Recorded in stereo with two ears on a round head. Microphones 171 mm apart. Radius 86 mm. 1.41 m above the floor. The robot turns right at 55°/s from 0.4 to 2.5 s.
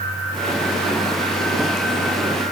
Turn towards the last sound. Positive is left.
No sound to turn to.